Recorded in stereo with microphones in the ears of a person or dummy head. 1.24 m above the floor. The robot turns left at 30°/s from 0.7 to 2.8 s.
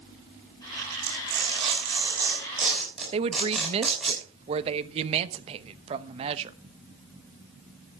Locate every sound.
1.0 s tearing paper: 50° right (ahead or behind), 6.5 m; by 4.1 s centre (ahead or behind), 6.5 m
3.1 s a woman speaking: 35° right (ahead or behind), 1.0 m